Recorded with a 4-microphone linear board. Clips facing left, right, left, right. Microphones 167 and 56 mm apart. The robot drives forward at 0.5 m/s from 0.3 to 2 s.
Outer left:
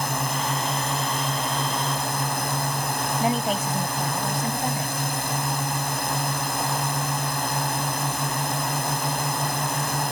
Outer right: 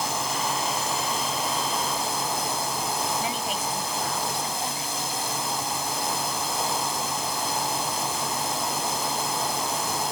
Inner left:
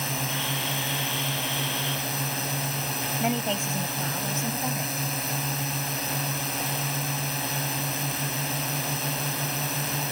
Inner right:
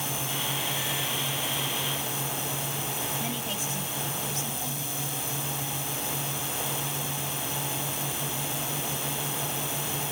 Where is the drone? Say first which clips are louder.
Outer left 1 dB, inner left 3 dB; 60° left (ahead or behind).